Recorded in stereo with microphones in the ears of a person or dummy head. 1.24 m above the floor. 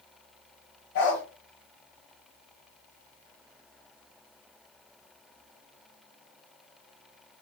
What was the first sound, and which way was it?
A dog barking, 60° left (ahead or behind).